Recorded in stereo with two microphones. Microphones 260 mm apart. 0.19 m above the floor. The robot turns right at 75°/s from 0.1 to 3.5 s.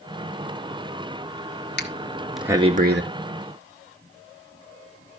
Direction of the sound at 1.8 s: 45° left (ahead or behind).